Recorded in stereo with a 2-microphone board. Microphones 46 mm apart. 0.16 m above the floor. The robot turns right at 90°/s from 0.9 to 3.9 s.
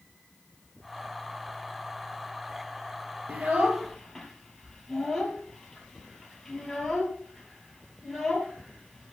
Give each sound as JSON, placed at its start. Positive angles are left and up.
{"t": 3.3, "sound": "a child speaking", "side_deg": -45, "distance_m": 2.5}